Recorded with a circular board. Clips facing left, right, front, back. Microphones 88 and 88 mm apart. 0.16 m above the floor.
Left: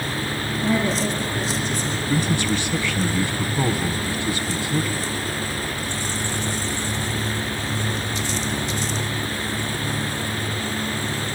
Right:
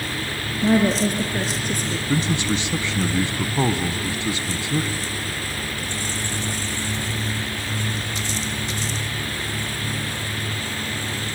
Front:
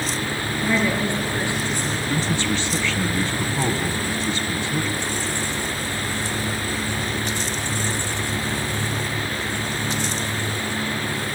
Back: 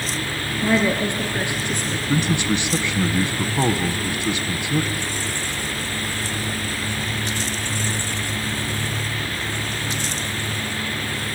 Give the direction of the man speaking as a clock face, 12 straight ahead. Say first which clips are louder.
Even, back 4 dB; 4 o'clock.